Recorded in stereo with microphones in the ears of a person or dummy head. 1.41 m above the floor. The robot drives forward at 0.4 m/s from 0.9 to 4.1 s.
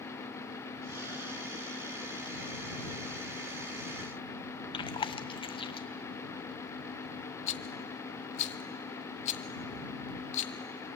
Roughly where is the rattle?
Left.